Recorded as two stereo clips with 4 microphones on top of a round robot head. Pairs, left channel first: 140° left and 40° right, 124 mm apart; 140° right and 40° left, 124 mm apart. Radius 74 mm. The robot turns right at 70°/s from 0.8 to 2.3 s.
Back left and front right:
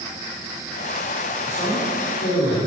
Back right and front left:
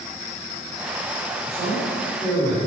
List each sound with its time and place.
1.4 s a man speaking: 70° left, 3.5 m; by 2.6 s 130° left, 3.5 m